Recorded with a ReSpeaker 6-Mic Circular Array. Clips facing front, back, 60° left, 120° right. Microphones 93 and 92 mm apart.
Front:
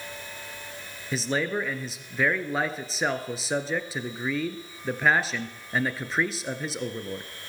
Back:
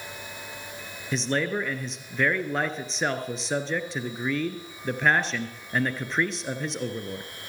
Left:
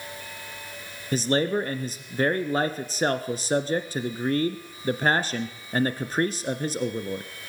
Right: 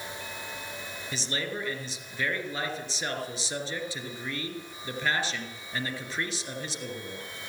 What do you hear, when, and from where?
1.1 s a man speaking: 85° left, 2.0 m